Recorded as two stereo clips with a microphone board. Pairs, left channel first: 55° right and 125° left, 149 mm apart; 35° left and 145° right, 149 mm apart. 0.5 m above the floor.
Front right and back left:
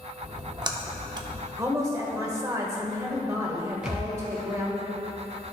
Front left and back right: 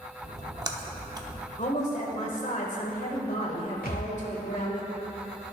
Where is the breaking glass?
I don't hear breaking glass.